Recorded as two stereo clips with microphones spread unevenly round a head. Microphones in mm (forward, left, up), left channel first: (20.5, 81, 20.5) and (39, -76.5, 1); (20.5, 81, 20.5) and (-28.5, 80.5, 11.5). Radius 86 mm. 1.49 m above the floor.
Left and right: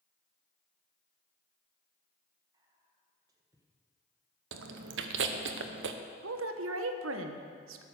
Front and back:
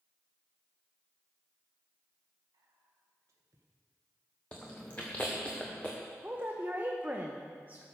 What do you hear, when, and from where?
2.5 s whispering: 155° right, 1.5 m
4.5 s chewing: 80° right, 0.8 m
6.2 s a woman speaking: 95° right, 1.0 m